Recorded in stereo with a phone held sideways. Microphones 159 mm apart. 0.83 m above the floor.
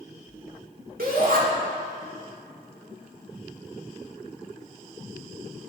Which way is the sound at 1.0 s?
65° right (ahead or behind).